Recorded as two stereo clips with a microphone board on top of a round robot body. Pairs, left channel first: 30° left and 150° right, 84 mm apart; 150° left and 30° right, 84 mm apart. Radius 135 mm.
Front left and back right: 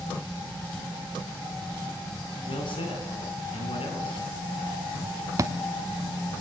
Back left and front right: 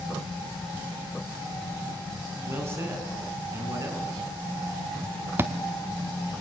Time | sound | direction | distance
2.5 | a man speaking | 30° left | 6 m
5.4 | a thud | 95° right | 0.7 m